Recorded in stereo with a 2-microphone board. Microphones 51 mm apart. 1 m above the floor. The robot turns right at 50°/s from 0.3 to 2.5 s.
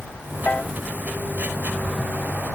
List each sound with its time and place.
0.5 s a piano: 30° left (ahead or behind); by 0.7 s 20° left (ahead or behind)